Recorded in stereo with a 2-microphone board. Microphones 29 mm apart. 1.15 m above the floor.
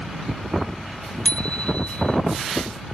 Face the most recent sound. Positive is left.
turn(degrees=40)  # may be behind; listen again after turning